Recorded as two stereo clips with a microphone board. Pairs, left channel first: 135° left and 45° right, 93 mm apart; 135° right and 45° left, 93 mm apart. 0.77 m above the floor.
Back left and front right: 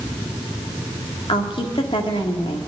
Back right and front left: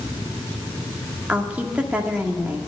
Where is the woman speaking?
120° left, 1.8 m.